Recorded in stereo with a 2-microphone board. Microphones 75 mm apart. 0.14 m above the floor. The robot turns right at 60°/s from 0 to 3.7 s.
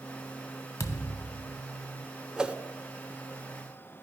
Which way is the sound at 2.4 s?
10° right (ahead or behind).